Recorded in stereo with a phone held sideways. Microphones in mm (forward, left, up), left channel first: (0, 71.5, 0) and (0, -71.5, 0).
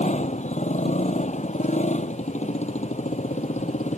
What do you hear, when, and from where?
0.0 s a motorcycle: 55° left (ahead or behind)